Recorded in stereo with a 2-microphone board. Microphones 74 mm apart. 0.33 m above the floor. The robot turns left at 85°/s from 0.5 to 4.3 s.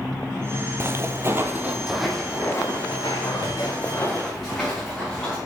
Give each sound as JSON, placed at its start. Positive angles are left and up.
{"t": 0.8, "sound": "footsteps", "side_deg": -35, "distance_m": 0.6}